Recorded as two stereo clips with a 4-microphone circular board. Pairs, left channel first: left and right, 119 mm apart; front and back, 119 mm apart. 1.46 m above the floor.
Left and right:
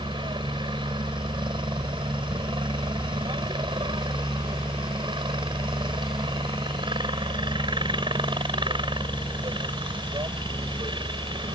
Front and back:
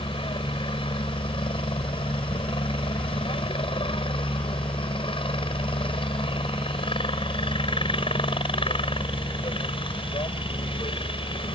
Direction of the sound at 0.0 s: 40° right.